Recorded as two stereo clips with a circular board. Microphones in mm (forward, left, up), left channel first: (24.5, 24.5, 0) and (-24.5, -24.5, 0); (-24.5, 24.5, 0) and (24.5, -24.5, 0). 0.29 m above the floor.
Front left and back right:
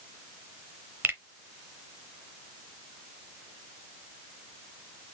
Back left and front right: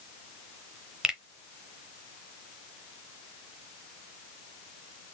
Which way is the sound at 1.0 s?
115° right.